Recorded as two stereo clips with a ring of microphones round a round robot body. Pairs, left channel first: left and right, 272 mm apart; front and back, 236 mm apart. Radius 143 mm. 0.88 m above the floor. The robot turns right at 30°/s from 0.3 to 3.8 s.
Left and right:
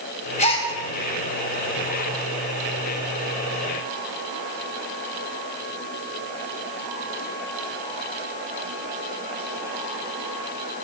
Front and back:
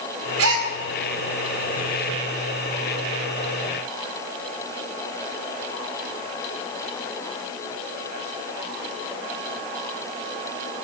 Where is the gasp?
155° left, 2 m; by 0.7 s 165° left, 2 m.